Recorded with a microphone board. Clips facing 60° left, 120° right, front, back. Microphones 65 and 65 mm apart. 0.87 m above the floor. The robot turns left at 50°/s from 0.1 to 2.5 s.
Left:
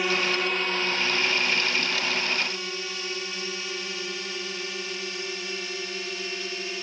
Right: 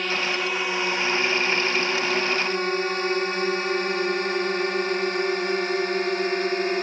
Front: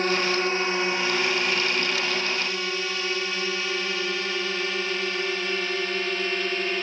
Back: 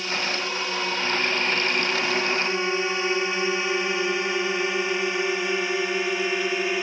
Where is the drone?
20° right; by 6.8 s 105° right.